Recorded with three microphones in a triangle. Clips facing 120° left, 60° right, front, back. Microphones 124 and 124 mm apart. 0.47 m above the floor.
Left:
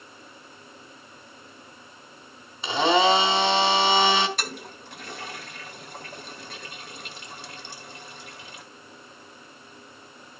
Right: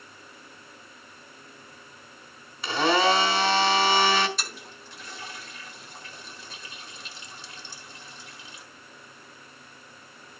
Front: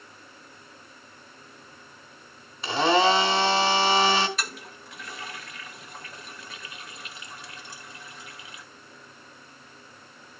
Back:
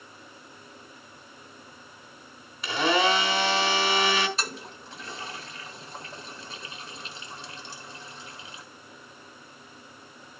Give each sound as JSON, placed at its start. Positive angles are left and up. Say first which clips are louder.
{"t": 2.6, "sound": "a blender", "louder": "left 2 dB, front 3 dB", "azimuth_deg": 55, "distance_m": 2.0}
{"t": 4.4, "sound": "a toilet flushing", "louder": "left 5 dB, back 1 dB", "azimuth_deg": 125, "distance_m": 1.3}